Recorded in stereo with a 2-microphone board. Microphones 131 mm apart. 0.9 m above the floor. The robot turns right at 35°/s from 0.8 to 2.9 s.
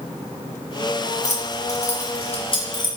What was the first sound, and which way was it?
Keys jangling, 60° left (ahead or behind).